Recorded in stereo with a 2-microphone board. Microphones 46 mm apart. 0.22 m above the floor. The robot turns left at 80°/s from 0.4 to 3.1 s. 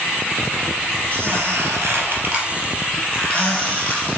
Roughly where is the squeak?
Right.